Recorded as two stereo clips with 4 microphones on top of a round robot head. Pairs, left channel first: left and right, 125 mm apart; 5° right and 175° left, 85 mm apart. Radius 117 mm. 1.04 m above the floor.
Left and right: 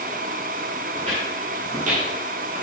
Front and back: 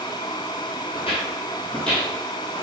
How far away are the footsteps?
About 1.2 m.